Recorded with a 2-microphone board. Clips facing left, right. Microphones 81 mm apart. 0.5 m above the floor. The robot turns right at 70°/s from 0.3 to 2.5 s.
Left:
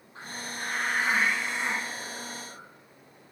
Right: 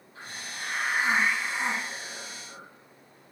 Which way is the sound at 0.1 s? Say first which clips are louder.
Left 2 dB; 150° left.